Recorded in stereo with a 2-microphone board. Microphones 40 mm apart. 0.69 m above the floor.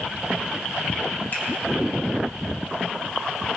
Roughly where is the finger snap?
Left.